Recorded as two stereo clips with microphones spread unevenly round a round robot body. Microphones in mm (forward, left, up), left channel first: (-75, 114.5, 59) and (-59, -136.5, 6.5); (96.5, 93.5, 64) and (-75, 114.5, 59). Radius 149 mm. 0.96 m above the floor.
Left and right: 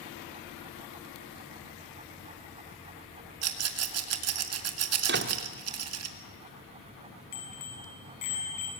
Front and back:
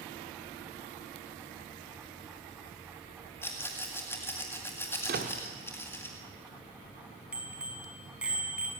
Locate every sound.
3.4 s a rattle: 85° right, 1.8 m
5.1 s a door slam: 135° right, 1.5 m
7.3 s a bicycle bell: 90° left, 6.5 m